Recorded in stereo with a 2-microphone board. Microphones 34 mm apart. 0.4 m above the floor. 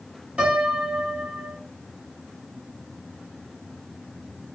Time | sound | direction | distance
0.4 | a piano | 35° right (ahead or behind) | 2 m